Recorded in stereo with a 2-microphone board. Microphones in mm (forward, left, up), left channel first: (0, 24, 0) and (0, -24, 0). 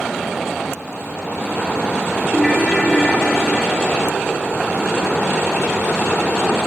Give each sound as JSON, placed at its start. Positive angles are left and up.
{"t": 2.3, "sound": "a ringtone", "side_deg": 10, "distance_m": 4.0}